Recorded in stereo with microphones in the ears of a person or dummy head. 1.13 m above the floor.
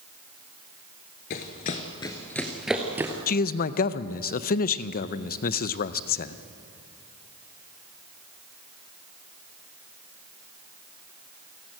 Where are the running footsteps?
40° left (ahead or behind), 1.3 m; by 3.1 s 10° right (ahead or behind), 1.6 m.